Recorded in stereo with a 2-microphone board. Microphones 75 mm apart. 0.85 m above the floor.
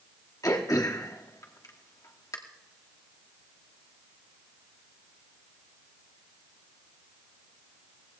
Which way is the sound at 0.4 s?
50° left (ahead or behind).